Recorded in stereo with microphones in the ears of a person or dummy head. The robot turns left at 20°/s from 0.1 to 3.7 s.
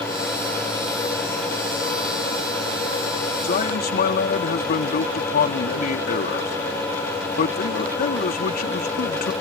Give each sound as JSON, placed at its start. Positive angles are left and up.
{"t": 3.4, "sound": "a man speaking", "side_deg": 50}